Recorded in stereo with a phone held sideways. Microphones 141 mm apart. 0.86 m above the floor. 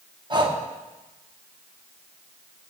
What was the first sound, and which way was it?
Breathing, 35° right (ahead or behind).